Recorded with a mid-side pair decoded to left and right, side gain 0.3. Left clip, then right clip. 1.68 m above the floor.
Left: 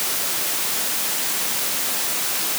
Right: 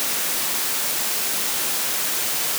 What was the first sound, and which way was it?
Only background noise.